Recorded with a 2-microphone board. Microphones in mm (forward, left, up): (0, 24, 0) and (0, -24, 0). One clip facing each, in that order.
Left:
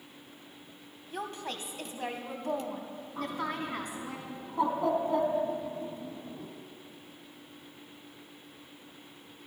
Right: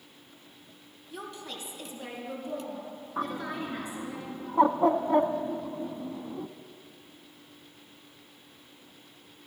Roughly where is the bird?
Right.